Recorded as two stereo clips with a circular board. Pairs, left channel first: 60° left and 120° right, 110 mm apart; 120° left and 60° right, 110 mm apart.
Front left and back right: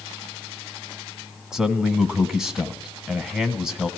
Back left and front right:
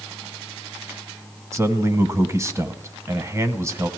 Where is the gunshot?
No gunshot in this recording.